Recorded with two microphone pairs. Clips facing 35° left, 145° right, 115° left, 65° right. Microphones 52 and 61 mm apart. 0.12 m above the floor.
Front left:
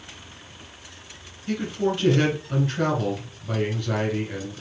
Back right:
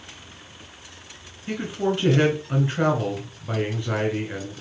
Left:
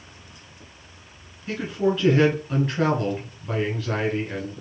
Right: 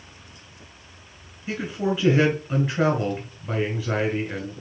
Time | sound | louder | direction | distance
1.5 | a man speaking | even, left 2 dB | 125° right | 1.3 m